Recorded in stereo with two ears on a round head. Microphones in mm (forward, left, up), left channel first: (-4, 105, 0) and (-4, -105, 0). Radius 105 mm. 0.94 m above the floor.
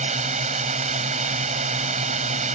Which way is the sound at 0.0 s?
30° right (ahead or behind).